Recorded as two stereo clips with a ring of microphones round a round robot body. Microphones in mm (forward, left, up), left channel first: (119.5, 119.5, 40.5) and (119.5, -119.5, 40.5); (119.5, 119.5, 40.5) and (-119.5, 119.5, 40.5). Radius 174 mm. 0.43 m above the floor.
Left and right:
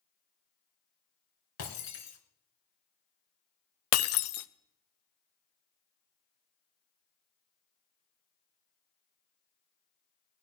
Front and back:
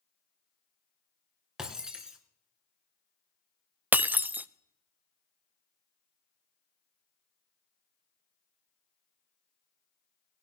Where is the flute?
No flute in this recording.